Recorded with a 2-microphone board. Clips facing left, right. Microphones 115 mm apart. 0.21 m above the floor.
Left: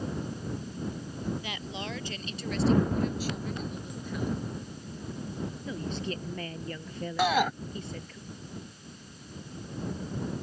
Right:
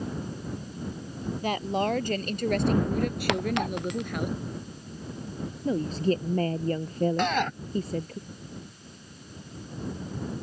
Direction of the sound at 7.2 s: 10° left (ahead or behind).